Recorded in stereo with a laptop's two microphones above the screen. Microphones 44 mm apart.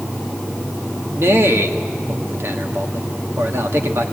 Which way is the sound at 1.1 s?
70° right (ahead or behind).